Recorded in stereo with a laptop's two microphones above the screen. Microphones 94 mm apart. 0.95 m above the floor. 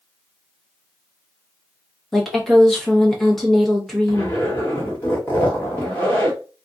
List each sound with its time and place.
2.1 s a woman speaking: 5° left (ahead or behind), 0.8 m
4.1 s a zipper: 20° left (ahead or behind), 1.1 m